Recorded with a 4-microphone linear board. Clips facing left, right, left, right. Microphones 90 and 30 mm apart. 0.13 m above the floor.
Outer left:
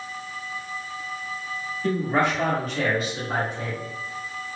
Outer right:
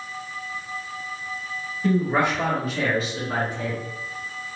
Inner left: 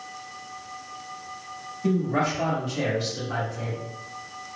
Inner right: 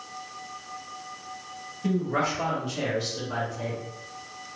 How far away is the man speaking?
About 1.8 m.